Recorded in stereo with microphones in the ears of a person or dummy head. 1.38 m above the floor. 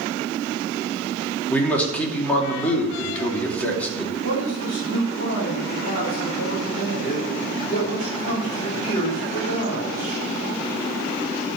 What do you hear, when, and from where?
1.5 s a man speaking: 10° left (ahead or behind), 2.5 m
4.2 s a man speaking: 45° left (ahead or behind), 3.5 m